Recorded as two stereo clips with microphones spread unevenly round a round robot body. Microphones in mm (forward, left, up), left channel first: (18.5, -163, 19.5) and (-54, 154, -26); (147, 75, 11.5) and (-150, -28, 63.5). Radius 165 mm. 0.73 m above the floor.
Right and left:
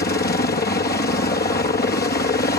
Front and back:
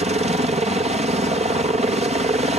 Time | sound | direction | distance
0.0 | a helicopter | 100° right | ?